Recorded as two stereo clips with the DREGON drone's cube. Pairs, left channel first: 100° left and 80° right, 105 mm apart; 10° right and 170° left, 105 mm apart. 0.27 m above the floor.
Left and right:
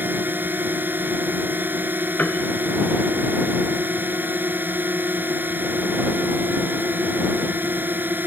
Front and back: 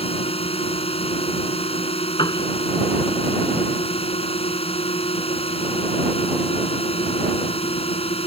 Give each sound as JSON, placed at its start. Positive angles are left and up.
{"t": 0.0, "sound": "a drone", "azimuth_deg": -10}
{"t": 2.2, "sound": "a piano", "azimuth_deg": 25}